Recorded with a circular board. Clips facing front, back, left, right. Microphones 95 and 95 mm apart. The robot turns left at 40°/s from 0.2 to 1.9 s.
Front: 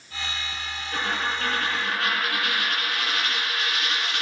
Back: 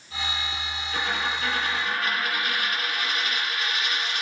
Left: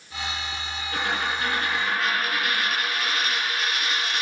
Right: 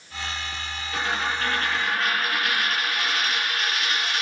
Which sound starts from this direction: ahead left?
A dropped coin, at 0.9 s.